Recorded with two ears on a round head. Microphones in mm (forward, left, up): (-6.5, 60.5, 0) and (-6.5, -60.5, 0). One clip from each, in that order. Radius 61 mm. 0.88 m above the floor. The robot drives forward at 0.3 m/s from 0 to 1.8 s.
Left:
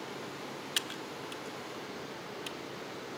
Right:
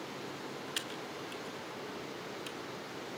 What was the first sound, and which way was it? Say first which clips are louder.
Typing on a keyboard: left 5 dB; 25° left (ahead or behind).